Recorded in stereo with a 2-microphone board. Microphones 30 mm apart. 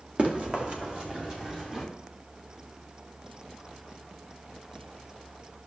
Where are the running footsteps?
40° right (ahead or behind), 2.5 m; by 1.9 s 25° right (ahead or behind), 2.5 m.